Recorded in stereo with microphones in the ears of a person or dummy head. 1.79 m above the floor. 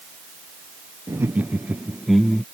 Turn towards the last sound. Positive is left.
turn(degrees=0)  # may be behind; listen again after turning